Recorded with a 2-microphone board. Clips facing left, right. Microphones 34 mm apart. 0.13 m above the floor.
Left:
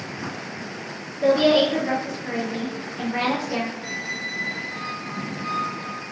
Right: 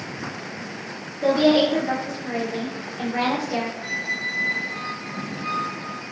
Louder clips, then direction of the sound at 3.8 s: Right 3 dB; 25° right (ahead or behind).